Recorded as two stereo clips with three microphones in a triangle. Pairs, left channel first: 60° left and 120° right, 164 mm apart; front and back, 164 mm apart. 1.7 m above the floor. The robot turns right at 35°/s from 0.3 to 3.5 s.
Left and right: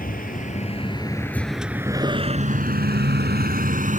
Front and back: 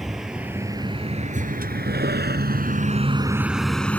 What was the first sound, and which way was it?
A vehicle, 90° left.